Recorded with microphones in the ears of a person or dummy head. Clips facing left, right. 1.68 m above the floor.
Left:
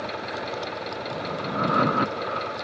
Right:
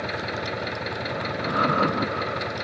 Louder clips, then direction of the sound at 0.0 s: Right 1 dB; 25° right (ahead or behind).